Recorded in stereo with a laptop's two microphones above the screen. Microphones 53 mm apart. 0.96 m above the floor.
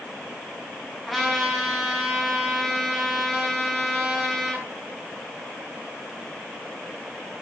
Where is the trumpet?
5° left (ahead or behind), 6 m.